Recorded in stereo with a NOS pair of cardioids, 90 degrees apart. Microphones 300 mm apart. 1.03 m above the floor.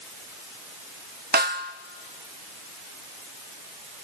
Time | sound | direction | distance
1.3 | a snare drum | 35° right | 0.9 m